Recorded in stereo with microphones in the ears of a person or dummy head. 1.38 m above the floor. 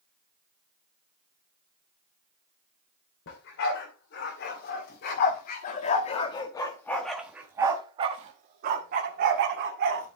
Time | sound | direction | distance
3.3 | a dog barking | 65° left (ahead or behind) | 2.5 m